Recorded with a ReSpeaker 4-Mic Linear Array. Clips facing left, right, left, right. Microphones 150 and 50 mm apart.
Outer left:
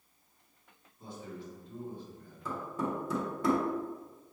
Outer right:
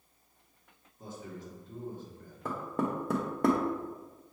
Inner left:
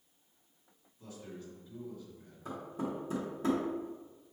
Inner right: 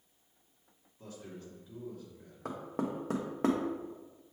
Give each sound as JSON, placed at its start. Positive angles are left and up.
{"t": 1.0, "sound": "a man speaking", "side_deg": -40, "distance_m": 1.7}
{"t": 2.5, "sound": "knocking", "side_deg": -55, "distance_m": 0.8}